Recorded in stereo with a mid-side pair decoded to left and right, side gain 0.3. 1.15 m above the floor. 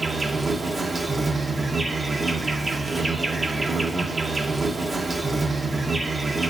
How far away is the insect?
About 1.1 m.